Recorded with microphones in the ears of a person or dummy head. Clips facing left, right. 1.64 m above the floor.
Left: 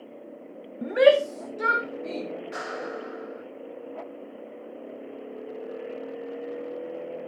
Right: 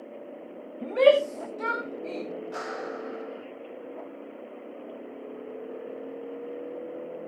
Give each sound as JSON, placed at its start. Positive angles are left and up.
{"t": 0.8, "sound": "a shout", "side_deg": 20, "distance_m": 0.5}
{"t": 2.5, "sound": "a clap", "side_deg": 35, "distance_m": 7.5}